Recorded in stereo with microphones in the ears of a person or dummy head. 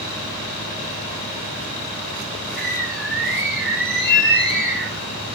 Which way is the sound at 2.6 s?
5° left (ahead or behind).